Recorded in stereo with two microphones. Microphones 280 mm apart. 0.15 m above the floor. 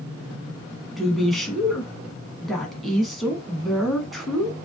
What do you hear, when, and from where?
1.0 s a woman speaking: centre (ahead or behind), 1.1 m